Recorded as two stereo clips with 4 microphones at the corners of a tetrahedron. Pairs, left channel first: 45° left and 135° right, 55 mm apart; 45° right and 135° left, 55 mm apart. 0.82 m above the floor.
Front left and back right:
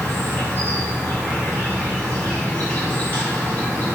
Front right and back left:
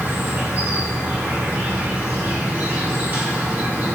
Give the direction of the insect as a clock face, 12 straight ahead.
9 o'clock.